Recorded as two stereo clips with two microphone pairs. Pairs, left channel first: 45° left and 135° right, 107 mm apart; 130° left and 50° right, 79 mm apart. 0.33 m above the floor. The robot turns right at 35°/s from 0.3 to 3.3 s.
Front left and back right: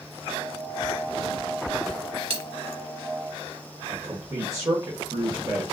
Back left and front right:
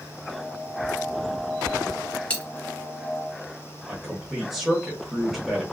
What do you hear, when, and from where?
2.3 s a dropped coin: 155° right, 1.4 m; by 2.5 s 150° right, 1.4 m
3.9 s a man speaking: 130° right, 1.0 m